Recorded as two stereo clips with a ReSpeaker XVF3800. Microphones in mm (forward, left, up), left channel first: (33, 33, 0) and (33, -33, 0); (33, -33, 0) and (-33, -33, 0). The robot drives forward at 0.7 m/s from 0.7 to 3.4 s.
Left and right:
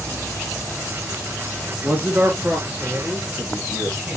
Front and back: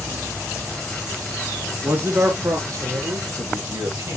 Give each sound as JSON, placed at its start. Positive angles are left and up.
{"t": 1.8, "sound": "a man speaking", "azimuth_deg": -140, "distance_m": 1.4}